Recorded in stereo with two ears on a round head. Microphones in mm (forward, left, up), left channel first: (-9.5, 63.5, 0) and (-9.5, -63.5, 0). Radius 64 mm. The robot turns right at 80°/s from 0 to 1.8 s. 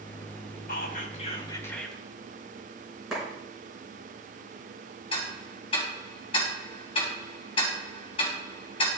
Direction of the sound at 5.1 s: 40° left (ahead or behind).